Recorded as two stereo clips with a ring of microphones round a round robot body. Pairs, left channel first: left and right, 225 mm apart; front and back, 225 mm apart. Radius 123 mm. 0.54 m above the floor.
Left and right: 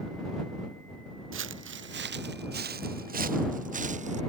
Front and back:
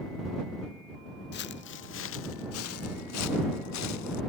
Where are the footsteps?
55° right; by 4.2 s 30° right.